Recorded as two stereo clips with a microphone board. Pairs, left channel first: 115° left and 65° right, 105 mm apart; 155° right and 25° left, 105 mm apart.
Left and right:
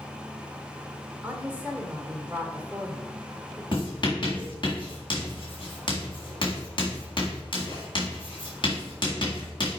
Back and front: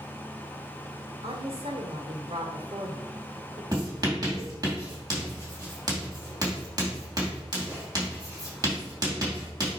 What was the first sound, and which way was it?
A woman speaking, 5° left.